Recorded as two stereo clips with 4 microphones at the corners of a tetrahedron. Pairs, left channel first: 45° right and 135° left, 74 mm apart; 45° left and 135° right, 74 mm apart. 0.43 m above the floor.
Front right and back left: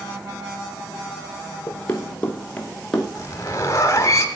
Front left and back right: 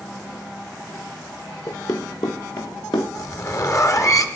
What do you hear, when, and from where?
1.7 s running footsteps: 15° left, 1.7 m; by 3.0 s 35° left, 2.0 m
3.1 s a zipper: 5° left, 1.2 m